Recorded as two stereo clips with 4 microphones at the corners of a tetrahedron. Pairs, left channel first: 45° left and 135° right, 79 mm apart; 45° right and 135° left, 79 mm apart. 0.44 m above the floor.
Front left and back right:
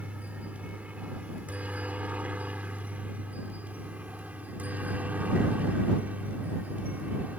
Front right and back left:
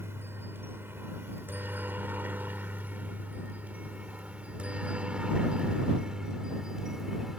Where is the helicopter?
165° left; by 7.4 s 150° right.